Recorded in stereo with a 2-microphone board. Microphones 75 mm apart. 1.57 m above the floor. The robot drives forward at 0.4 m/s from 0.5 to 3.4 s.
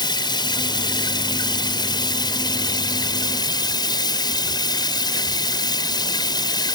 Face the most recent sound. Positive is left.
turn(degrees=70)  # may be behind; listen again after turning